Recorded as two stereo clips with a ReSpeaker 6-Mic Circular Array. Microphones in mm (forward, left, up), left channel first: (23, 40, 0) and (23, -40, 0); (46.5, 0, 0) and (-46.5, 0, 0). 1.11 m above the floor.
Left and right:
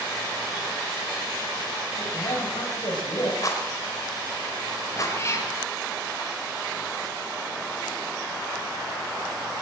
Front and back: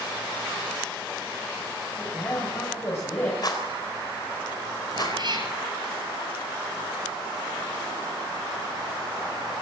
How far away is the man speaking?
About 6 m.